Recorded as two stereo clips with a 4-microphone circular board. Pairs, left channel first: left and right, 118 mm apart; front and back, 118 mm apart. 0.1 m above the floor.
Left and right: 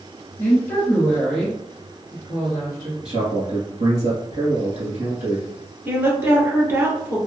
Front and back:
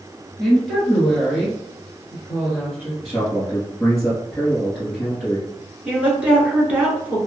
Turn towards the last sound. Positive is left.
turn(degrees=-120)